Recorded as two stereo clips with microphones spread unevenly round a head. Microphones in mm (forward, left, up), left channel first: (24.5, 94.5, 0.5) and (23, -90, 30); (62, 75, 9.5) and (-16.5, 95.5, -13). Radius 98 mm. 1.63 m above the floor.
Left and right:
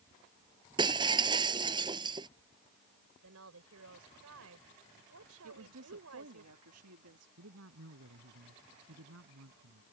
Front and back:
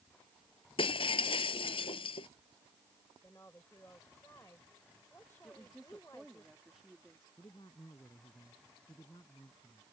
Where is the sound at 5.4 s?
105° right.